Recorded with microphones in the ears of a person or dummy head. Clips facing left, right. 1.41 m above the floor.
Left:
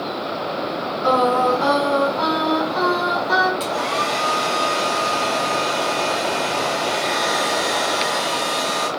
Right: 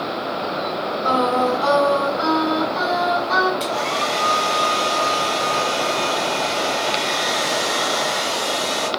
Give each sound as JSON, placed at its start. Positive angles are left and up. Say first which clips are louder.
{"t": 1.0, "sound": "singing", "louder": "left 2 dB", "side_deg": 65, "distance_m": 1.7}
{"t": 3.6, "sound": "a hair dryer", "louder": "even", "side_deg": 15, "distance_m": 0.6}